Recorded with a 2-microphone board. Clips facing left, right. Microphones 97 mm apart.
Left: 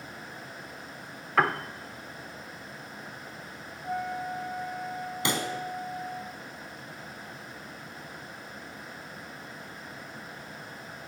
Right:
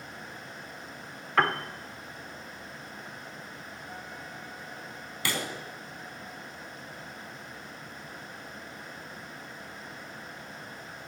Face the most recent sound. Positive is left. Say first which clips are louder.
# left 3 dB
turn(degrees=20)  # may be behind; listen again after turning